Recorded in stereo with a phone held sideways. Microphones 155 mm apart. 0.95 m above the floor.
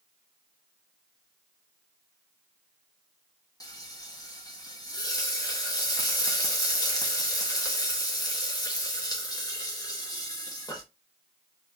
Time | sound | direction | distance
3.6 | frying | 25° left (ahead or behind) | 1.0 m